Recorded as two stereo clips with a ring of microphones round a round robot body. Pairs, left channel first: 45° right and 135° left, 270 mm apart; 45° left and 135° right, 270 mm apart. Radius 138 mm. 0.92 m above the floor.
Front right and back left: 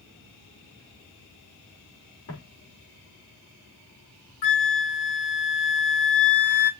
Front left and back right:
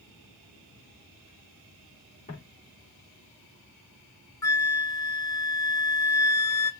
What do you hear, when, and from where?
2.3 s footsteps: 20° right, 4.5 m
4.4 s a flute: 35° right, 1.0 m